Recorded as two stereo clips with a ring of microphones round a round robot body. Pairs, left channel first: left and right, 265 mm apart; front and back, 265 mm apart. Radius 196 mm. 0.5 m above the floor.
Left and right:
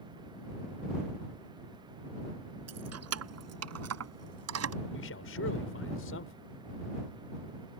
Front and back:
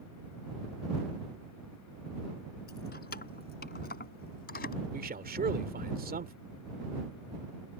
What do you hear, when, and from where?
2.7 s keys jangling: 65° right
4.9 s a man speaking: 130° left